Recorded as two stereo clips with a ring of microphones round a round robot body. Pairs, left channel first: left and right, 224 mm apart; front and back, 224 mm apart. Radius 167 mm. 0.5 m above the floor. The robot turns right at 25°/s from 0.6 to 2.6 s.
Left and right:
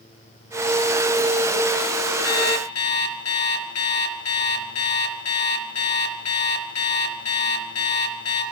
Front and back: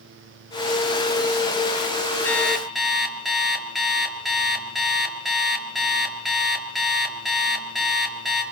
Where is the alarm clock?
80° left, 4.5 m; by 8.4 s 90° left, 4.5 m.